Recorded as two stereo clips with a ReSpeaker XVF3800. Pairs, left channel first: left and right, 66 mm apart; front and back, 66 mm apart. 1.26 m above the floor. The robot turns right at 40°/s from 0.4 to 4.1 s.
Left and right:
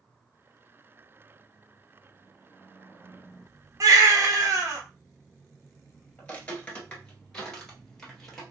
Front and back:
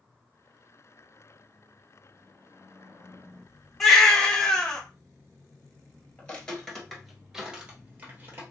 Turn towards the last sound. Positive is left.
turn(degrees=170)